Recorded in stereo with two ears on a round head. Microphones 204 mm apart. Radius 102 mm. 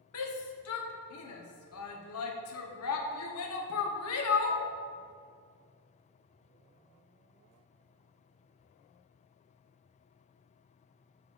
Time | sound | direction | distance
0.1 | a shout | 75° left (ahead or behind) | 1.0 m